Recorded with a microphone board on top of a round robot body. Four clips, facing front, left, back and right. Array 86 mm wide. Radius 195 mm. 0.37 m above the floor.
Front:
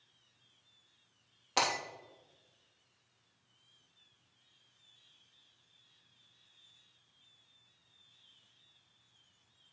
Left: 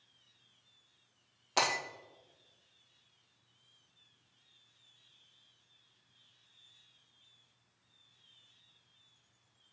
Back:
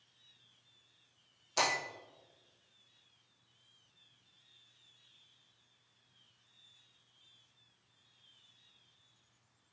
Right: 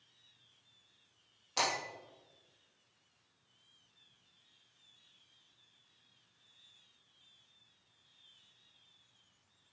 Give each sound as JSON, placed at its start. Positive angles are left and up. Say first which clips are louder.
{"t": 1.6, "sound": "breaking glass", "louder": "left 3 dB, front 1 dB", "azimuth_deg": 35, "distance_m": 3.0}